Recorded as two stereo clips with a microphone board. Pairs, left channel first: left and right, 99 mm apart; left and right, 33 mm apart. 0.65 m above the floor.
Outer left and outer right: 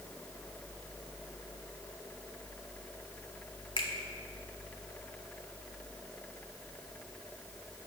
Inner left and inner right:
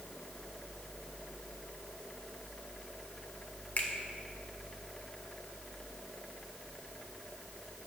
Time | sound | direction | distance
3.8 | a finger snap | 55° left (ahead or behind) | 1.6 m